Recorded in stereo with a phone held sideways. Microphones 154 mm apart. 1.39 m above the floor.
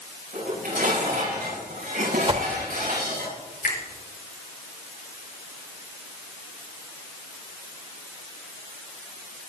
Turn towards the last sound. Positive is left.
turn(degrees=80)